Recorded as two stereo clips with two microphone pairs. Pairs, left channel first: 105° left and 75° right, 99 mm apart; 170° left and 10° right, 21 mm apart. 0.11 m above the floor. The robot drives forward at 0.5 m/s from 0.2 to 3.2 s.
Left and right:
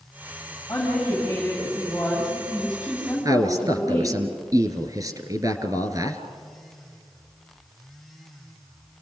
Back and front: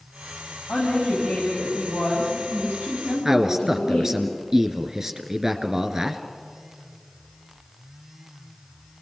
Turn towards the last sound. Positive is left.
turn(degrees=-65)